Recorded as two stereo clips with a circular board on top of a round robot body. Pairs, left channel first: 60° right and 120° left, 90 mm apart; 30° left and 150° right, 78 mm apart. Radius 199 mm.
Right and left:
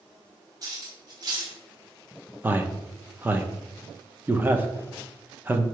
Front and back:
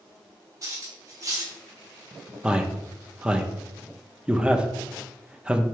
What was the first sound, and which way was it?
Cutlery clinking, 165° left.